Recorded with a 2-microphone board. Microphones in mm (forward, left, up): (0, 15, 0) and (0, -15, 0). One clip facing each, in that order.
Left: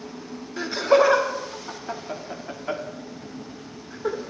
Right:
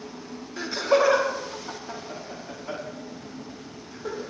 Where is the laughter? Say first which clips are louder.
Left 3 dB; 10° left (ahead or behind), 1.5 m; by 4.2 s 40° left (ahead or behind), 2.5 m.